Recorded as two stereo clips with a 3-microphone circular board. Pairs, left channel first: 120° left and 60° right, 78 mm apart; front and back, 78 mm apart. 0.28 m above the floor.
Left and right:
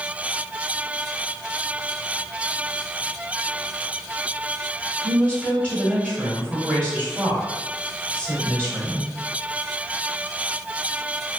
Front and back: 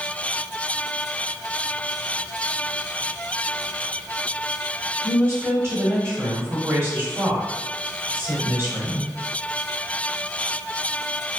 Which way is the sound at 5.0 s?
Straight behind.